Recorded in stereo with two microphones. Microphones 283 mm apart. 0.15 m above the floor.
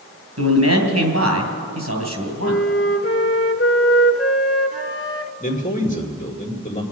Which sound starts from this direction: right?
A man speaking, at 0.4 s.